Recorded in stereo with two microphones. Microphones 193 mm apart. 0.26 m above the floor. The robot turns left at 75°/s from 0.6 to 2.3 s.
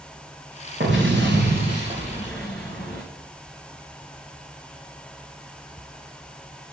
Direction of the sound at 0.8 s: 65° right.